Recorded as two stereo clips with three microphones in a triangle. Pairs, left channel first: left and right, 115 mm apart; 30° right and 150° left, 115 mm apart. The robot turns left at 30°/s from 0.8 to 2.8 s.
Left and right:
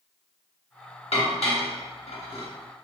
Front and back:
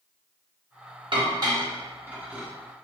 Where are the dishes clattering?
110° left, 1.0 m; by 2.5 s 70° left, 1.0 m.